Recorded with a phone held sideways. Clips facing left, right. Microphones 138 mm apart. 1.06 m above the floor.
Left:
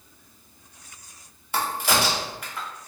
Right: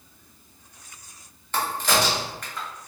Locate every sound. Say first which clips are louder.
1.5 s a crack: even; 10° left (ahead or behind), 0.7 m